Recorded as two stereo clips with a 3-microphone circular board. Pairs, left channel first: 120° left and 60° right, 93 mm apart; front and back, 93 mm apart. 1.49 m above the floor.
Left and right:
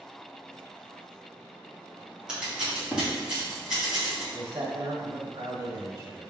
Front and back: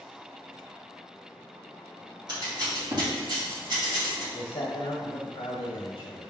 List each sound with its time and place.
2.3 s scissors: 140° right, 2.5 m
4.3 s a man speaking: 20° right, 1.4 m